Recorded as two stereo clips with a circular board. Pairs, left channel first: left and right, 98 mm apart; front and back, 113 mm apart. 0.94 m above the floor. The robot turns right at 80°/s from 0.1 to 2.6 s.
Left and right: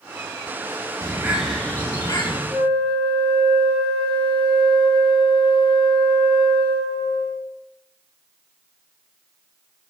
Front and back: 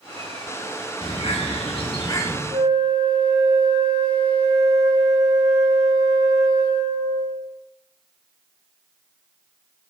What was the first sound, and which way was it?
A bird, 35° right.